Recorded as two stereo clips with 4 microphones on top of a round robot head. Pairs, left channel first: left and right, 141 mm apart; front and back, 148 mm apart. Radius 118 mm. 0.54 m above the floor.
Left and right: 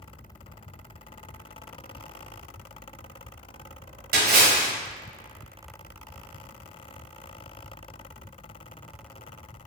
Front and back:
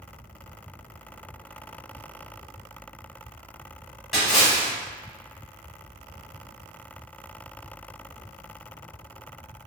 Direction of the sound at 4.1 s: 90° right.